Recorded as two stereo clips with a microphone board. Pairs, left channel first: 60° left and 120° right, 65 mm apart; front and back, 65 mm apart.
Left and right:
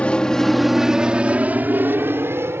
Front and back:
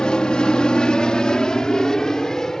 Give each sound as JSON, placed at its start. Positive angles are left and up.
{"t": 0.0, "sound": "an aircraft", "azimuth_deg": 45}